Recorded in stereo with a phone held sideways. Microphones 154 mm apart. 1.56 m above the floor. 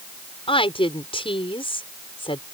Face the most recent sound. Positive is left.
turn(degrees=35)  # may be behind; listen again after turning